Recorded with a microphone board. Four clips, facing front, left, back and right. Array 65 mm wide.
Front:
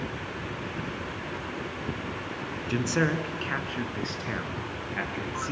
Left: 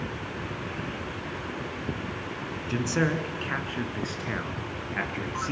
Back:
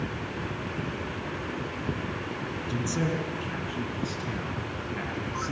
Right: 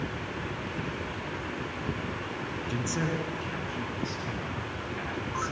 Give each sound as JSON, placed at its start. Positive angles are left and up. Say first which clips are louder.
{"t": 2.7, "sound": "a man speaking", "louder": "left 6 dB, front 4 dB", "azimuth_deg": 25, "distance_m": 3.0}